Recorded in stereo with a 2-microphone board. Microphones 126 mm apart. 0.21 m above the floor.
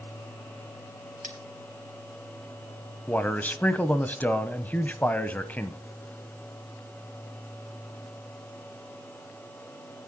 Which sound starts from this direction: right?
Cutlery clinking, at 1.2 s.